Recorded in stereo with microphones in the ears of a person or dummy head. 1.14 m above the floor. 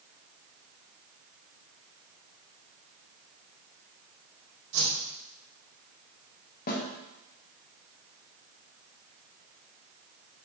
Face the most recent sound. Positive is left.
turn(degrees=45)  # may be behind; listen again after turning